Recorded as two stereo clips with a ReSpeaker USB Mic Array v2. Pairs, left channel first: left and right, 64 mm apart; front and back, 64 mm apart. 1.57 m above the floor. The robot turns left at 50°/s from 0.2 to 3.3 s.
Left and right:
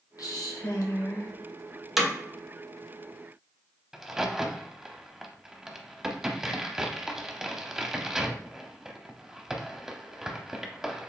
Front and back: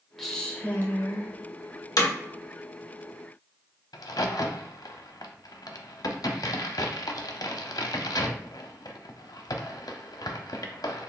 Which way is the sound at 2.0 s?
5° right.